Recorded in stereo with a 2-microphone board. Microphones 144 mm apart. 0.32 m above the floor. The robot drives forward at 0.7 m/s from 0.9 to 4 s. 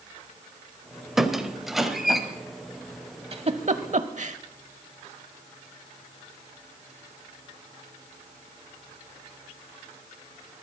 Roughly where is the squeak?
Centre.